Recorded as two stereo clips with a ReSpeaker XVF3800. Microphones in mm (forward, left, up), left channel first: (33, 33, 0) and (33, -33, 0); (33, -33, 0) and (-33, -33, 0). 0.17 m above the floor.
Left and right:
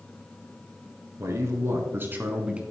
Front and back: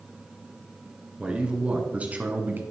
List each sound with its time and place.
1.2 s a man speaking: 110° right, 2 m; by 2.6 s 150° right, 1.4 m